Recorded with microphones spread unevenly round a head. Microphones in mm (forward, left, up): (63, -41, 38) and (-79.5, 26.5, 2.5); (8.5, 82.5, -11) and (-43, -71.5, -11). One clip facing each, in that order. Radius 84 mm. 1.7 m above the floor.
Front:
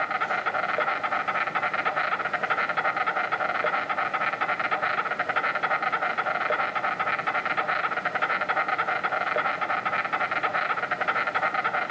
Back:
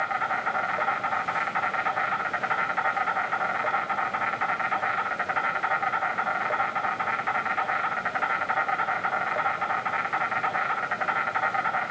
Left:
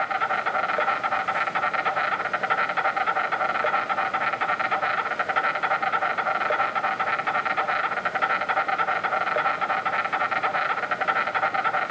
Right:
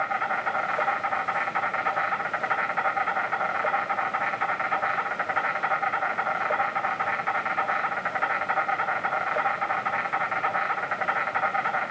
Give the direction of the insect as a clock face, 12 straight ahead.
11 o'clock.